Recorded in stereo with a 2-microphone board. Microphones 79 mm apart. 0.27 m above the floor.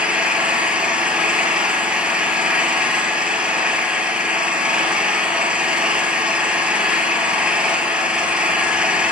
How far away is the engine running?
About 2.0 m.